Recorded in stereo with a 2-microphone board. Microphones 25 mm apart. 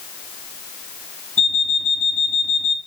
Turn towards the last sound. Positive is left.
turn(degrees=50)  # may be behind; listen again after turning